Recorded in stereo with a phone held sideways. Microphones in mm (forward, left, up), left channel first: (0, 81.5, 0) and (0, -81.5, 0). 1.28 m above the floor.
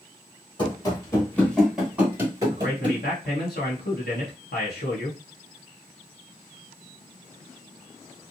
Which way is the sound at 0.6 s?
30° left (ahead or behind).